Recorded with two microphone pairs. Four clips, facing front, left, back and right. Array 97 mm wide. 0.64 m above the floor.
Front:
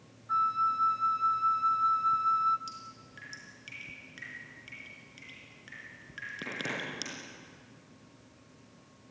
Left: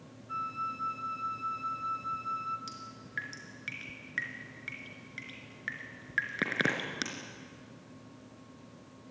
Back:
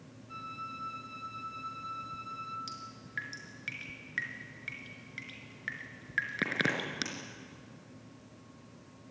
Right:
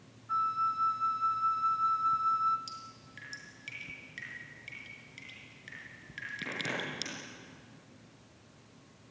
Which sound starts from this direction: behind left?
Dripping, at 2.7 s.